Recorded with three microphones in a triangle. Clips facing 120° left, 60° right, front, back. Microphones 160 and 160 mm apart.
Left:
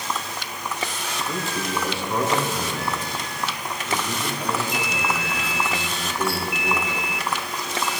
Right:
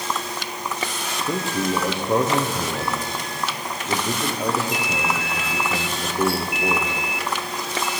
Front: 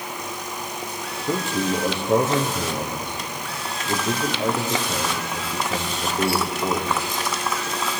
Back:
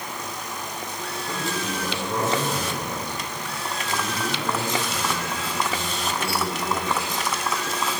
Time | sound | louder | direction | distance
1.3 | a man speaking | right 6 dB, front 7 dB | 30° right | 3.5 m